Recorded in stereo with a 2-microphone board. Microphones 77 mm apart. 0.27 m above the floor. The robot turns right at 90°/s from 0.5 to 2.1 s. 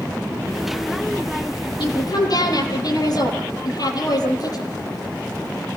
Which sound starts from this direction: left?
A woman speaking, at 1.8 s.